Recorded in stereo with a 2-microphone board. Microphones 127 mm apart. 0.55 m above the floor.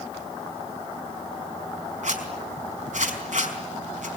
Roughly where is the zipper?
Right.